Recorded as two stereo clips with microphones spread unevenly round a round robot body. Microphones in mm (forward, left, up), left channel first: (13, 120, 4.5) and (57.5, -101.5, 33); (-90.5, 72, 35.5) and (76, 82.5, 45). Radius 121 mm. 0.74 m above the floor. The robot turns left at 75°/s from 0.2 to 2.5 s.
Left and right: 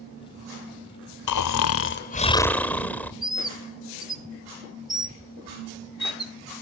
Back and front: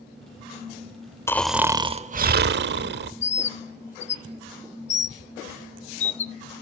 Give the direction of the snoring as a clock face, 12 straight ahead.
8 o'clock.